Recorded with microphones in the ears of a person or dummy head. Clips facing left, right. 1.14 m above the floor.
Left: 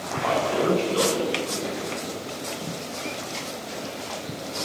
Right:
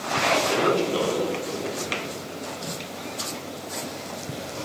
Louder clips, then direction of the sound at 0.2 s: Even; 65° right (ahead or behind).